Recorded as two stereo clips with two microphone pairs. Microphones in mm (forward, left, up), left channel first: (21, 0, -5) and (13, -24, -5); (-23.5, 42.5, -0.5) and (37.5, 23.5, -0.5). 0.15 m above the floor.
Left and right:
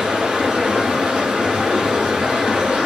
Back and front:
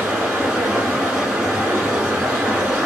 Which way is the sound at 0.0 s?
90° right.